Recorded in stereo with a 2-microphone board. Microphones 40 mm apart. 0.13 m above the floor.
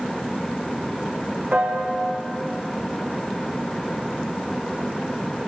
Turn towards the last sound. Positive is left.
turn(degrees=-40)  # may be behind; listen again after turning